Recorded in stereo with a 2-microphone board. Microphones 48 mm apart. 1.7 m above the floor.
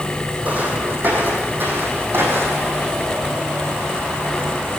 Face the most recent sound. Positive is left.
turn(degrees=-50)  # may be behind; listen again after turning